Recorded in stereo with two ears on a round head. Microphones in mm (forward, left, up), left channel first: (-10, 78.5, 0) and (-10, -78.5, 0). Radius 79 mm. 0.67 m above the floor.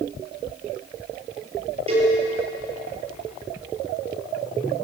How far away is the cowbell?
About 7.5 m.